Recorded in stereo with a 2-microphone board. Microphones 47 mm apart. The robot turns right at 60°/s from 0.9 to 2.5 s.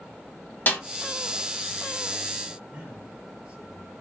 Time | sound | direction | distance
0.7 | a snare drum | 45° left (ahead or behind) | 1.5 m
2.7 | a man speaking | 20° right (ahead or behind) | 4.5 m